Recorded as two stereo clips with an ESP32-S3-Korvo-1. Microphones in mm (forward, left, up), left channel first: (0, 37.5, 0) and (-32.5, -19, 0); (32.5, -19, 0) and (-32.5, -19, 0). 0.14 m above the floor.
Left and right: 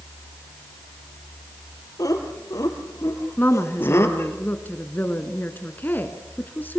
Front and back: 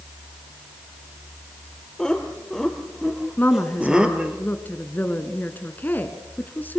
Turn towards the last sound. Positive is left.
turn(degrees=35)